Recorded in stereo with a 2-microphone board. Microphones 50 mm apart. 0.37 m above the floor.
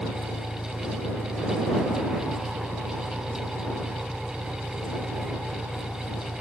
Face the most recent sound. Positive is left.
turn(degrees=-15)  # may be behind; listen again after turning